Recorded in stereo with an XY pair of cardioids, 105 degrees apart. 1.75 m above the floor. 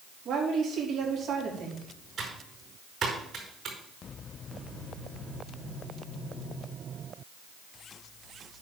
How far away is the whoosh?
I don't hear a whoosh.